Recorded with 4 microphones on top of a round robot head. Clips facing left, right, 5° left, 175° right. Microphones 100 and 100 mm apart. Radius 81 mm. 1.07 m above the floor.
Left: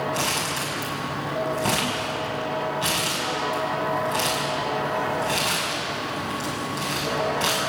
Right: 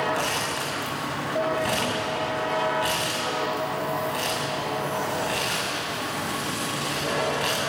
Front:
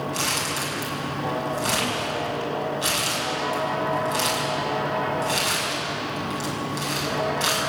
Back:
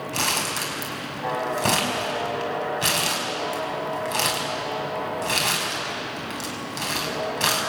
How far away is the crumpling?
About 6 m.